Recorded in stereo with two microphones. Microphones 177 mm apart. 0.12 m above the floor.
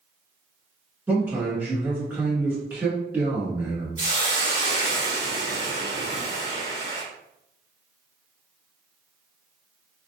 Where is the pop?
No pop in this recording.